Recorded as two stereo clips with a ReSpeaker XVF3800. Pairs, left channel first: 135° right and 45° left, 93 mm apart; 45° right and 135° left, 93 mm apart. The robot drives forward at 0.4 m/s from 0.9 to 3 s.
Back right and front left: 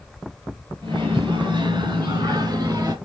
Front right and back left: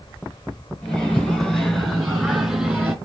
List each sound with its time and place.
0.8 s a microwave: 30° left, 1.8 m; by 3.0 s 60° left, 1.4 m